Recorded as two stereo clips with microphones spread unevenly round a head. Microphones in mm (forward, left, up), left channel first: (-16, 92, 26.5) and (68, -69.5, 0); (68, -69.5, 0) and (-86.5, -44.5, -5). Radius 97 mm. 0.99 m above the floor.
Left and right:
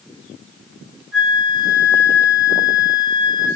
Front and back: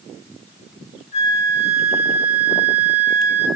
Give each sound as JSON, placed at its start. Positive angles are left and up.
{"t": 1.1, "sound": "a flute", "azimuth_deg": -50, "distance_m": 1.8}